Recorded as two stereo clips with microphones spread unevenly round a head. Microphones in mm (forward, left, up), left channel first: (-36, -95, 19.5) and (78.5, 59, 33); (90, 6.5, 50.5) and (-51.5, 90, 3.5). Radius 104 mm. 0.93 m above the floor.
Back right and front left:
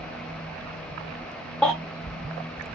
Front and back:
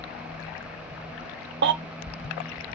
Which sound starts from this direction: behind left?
A baby crying, at 1.6 s.